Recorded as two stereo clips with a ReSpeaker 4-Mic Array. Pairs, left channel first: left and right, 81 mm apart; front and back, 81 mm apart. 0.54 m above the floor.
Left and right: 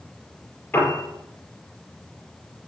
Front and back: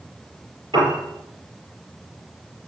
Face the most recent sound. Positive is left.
turn(degrees=155)